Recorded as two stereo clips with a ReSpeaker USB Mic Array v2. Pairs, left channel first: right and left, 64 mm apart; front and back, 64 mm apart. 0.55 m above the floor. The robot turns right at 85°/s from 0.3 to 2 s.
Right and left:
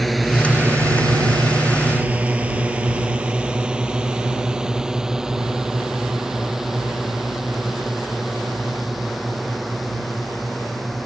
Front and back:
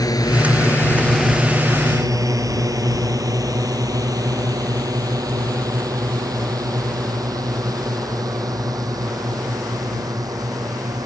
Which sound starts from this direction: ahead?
A drone, at 0.0 s.